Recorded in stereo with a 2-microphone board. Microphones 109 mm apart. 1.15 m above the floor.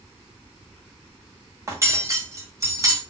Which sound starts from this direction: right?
Cutlery clinking, at 1.7 s.